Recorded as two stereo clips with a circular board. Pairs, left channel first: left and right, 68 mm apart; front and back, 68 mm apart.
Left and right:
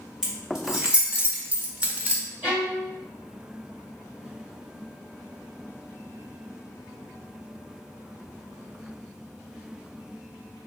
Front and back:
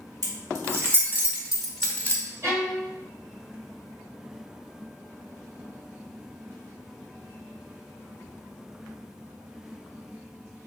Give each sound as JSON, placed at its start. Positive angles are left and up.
{"t": 0.2, "sound": "keys jangling", "azimuth_deg": -170, "distance_m": 1.2}
{"t": 2.4, "sound": "a violin", "azimuth_deg": -150, "distance_m": 1.5}